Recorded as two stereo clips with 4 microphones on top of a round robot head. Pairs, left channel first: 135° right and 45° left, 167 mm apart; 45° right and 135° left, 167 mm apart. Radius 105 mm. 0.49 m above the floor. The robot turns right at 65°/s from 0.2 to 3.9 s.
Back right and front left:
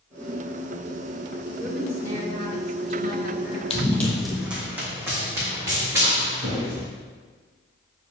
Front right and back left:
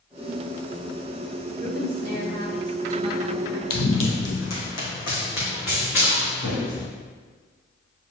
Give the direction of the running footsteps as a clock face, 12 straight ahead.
3 o'clock.